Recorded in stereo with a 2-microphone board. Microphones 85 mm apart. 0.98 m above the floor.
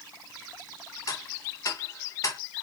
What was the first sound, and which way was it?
Ticking, 40° left (ahead or behind).